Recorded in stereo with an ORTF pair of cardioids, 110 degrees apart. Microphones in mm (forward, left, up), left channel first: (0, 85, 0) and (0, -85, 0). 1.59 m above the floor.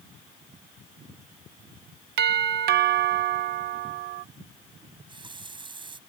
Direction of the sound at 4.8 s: 30° right.